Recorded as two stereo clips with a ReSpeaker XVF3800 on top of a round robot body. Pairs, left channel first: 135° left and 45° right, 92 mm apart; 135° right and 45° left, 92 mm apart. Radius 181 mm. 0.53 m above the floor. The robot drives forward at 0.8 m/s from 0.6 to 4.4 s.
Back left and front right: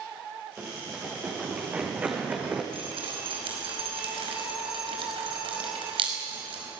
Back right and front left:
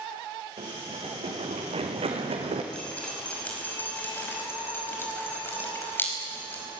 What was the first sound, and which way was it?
Running footsteps, 30° left.